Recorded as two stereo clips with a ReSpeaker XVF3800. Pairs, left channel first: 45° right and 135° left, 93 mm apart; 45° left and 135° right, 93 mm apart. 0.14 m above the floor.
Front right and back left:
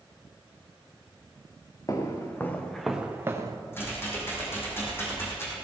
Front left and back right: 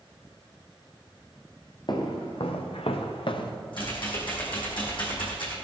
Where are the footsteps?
10° left, 2.5 m; by 3.6 s 85° left, 1.8 m.